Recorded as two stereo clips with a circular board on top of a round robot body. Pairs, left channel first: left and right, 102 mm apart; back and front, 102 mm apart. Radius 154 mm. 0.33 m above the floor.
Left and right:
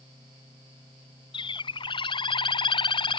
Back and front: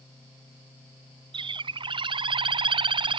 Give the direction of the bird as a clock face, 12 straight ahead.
11 o'clock.